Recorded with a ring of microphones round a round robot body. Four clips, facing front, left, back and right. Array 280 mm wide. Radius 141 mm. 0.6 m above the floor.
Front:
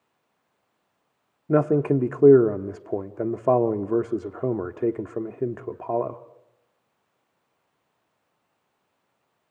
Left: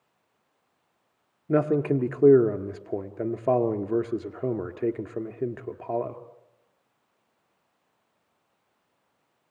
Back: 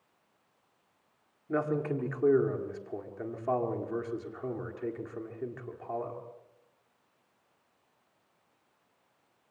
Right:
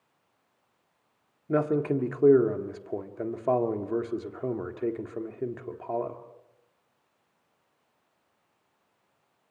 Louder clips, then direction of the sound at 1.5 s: Left 3 dB, front 10 dB; 15° left.